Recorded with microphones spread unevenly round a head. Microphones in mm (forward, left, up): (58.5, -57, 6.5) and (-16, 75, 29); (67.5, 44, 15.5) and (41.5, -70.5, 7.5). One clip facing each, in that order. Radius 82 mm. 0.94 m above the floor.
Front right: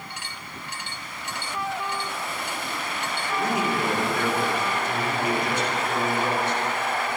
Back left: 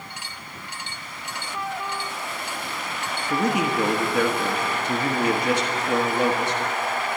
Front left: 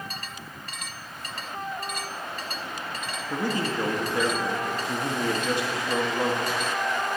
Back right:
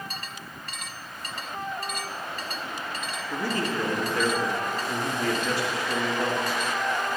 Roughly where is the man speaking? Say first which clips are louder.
Back left 3 dB, front left 1 dB; behind left.